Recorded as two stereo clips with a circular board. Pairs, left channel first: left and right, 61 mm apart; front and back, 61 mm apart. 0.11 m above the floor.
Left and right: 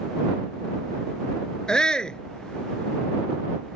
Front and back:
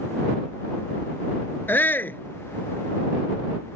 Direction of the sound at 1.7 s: 20° left.